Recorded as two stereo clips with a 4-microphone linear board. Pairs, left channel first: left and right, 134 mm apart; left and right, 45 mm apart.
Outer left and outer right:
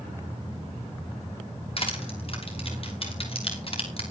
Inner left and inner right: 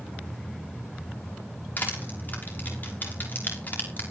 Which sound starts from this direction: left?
Crushing, at 1.8 s.